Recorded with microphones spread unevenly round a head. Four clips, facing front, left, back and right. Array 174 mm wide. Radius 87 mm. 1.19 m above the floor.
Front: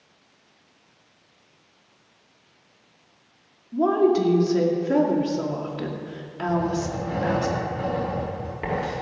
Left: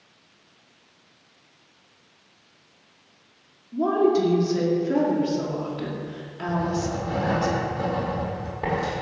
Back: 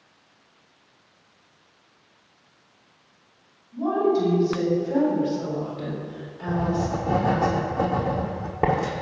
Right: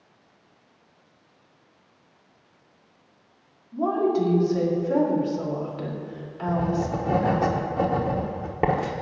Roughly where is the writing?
Behind right.